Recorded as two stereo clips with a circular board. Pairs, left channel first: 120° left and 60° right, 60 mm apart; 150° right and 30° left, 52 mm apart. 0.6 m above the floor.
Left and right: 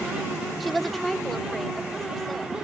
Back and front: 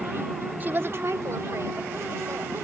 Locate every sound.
0.6 s a woman speaking: 25° left; by 2.6 s 35° left